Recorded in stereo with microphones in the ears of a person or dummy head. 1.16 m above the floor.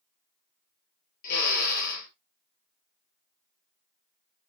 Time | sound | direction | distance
1.2 | a drill | 55° left (ahead or behind) | 5 m